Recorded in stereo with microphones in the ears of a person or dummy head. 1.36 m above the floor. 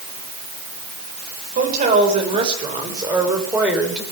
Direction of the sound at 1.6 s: 45° right (ahead or behind).